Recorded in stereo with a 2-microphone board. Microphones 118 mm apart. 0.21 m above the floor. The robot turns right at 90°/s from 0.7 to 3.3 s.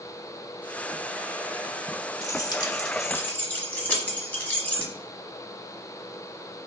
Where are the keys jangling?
30° left (ahead or behind), 1.1 m; by 4.9 s 15° left (ahead or behind), 1.1 m.